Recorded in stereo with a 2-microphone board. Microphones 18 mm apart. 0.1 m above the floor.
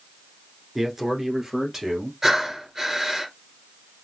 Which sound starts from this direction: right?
Breathing, at 2.2 s.